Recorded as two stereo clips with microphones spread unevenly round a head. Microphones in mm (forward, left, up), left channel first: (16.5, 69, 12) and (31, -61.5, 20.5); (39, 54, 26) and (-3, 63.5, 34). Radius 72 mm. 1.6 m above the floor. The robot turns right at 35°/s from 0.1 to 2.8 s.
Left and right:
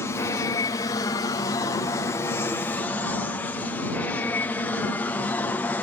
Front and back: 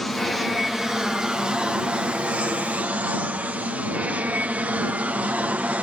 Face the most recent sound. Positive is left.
turn(degrees=155)